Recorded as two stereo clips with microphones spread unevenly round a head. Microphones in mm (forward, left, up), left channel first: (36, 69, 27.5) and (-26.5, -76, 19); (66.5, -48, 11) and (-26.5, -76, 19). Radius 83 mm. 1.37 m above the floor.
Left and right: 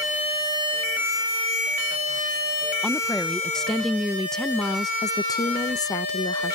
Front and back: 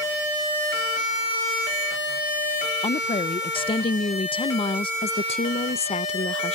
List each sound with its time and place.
2.8 s a woman speaking: 20° right
5.0 s a woman speaking: 5° right